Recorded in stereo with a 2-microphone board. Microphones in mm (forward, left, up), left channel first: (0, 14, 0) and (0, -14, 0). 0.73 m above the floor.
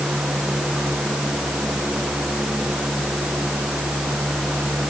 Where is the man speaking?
I don't hear a man speaking.